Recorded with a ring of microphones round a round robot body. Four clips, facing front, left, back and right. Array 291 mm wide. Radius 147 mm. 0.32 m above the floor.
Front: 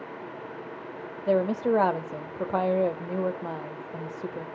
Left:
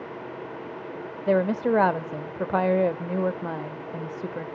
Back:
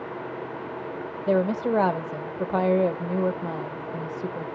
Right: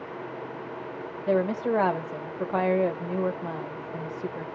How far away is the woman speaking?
About 0.9 m.